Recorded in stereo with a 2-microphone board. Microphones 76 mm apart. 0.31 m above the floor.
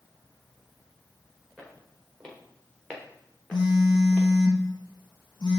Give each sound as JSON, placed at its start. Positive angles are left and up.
{"t": 1.6, "sound": "footsteps", "side_deg": 10, "distance_m": 4.0}
{"t": 3.5, "sound": "a phone buzzing", "side_deg": 75, "distance_m": 1.5}